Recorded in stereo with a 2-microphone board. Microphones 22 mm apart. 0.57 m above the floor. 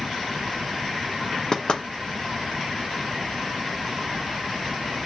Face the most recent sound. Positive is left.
turn(degrees=40)  # may be behind; listen again after turning